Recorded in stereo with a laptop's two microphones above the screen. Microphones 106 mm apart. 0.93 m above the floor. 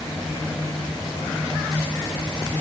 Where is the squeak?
I don't hear a squeak.